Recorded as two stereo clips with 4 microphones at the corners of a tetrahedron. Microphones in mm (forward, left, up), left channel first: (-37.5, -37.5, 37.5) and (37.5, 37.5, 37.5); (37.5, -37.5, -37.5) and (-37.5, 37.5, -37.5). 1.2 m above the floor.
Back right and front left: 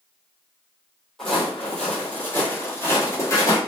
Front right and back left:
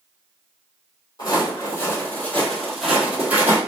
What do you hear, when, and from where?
1.2 s footsteps: 50° right, 1.4 m; by 3.6 s 170° right, 1.4 m